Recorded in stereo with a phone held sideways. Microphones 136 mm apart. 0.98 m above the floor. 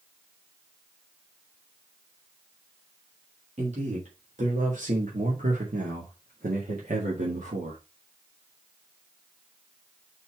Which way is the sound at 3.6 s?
55° right (ahead or behind).